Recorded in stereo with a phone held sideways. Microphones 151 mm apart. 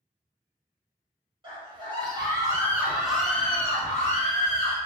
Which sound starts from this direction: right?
A scream, at 1.4 s.